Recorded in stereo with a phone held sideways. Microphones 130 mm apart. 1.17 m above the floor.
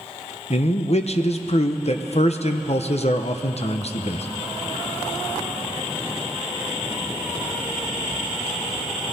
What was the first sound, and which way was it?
A man speaking, 55° left (ahead or behind).